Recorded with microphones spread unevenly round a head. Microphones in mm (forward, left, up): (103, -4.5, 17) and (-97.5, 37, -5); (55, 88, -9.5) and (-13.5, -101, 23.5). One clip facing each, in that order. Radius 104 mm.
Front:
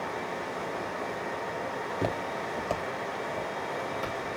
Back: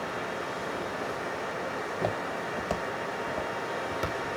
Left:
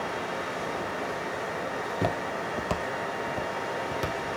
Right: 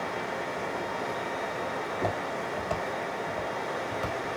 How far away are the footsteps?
About 1.5 m.